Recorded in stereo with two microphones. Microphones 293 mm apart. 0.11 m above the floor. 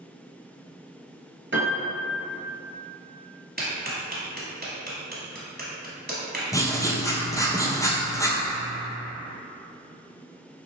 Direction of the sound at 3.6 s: 35° right (ahead or behind).